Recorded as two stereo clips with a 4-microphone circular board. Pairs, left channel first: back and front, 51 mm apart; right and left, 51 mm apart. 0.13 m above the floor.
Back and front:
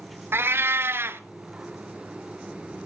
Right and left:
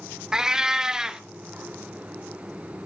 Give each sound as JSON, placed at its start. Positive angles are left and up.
{"t": 0.3, "sound": "a cat meowing", "azimuth_deg": 15, "distance_m": 0.7}